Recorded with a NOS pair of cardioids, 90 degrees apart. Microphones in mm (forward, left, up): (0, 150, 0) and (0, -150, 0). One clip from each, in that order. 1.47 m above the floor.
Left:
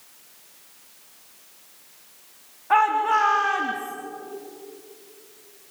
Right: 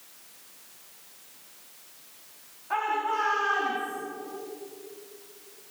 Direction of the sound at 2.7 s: 60° left.